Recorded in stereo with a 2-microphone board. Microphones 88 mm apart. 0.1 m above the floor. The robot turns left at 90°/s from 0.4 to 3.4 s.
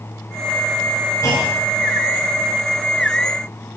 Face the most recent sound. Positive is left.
turn(degrees=-50)